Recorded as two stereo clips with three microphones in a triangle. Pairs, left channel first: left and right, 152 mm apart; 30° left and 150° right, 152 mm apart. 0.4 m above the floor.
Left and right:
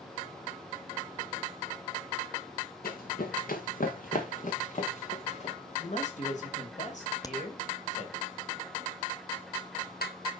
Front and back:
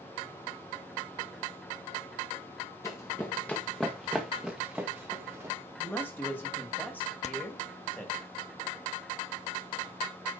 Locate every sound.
2.8 s running footsteps: 100° left, 2.0 m; by 5.5 s 135° left, 2.5 m
5.8 s a man speaking: 105° left, 2 m
7.2 s a crack: 35° left, 0.7 m